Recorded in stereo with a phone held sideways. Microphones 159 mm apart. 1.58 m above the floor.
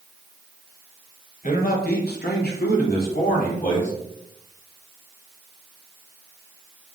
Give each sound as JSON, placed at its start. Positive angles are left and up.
{"t": 1.4, "sound": "a man speaking", "side_deg": 55, "distance_m": 1.0}